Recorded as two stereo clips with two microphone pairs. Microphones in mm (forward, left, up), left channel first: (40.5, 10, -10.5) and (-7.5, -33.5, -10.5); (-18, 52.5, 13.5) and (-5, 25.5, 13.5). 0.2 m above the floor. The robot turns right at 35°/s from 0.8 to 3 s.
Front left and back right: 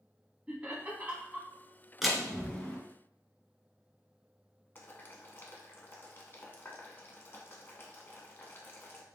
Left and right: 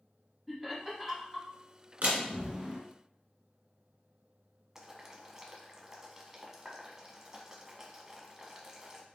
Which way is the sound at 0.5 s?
145° right.